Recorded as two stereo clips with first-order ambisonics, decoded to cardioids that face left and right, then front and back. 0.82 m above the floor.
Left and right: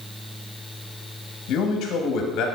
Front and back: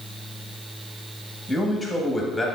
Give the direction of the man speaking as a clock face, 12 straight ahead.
9 o'clock.